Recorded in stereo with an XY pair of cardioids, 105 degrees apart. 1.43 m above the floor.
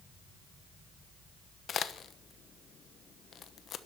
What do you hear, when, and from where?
1.7 s a crack: 55° left, 1.1 m